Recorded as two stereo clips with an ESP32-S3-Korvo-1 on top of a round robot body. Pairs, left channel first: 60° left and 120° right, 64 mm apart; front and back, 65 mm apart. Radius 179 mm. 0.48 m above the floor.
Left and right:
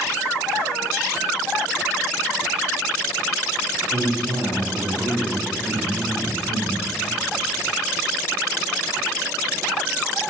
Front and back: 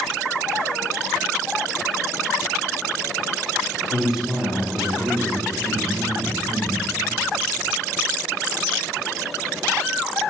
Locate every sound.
3.9 s a man speaking: 90° right, 2.5 m; by 6.8 s 150° left, 3 m